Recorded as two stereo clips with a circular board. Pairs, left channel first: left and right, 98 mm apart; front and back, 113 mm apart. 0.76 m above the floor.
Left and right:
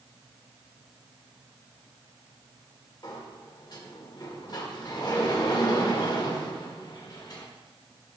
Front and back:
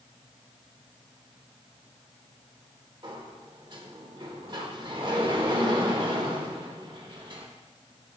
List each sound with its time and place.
3.0 s a sliding door: 135° left, 1.3 m